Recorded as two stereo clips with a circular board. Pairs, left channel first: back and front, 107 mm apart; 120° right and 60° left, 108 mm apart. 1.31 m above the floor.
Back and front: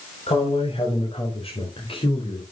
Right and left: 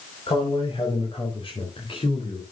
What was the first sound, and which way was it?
A man speaking, 155° right.